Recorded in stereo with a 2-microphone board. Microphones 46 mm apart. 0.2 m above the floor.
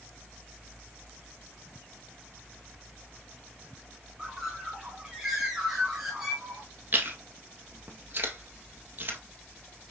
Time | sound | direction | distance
4.2 | a bird | 5° right (ahead or behind) | 1.9 m
6.9 | chewing | 40° right (ahead or behind) | 1.8 m